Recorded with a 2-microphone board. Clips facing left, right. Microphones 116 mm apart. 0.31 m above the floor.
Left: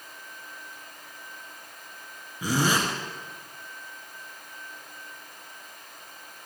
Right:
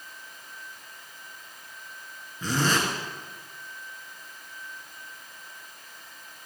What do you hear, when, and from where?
2.4 s a zipper: 10° left (ahead or behind), 2.5 m